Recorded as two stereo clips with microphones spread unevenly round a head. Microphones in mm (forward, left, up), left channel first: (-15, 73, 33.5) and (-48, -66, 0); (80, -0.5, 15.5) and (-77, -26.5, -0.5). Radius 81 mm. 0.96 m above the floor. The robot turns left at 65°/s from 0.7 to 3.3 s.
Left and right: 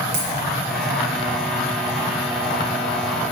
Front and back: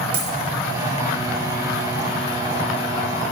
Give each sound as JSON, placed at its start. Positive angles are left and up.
{"t": 0.1, "sound": "a dropped coin", "azimuth_deg": -115, "distance_m": 3.5}